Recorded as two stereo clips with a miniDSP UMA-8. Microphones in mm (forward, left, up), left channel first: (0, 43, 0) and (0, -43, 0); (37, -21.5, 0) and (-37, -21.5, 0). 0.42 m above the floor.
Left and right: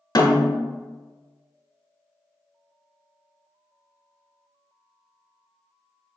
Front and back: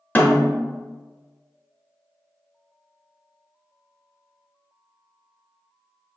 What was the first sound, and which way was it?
A snare drum, 65° left.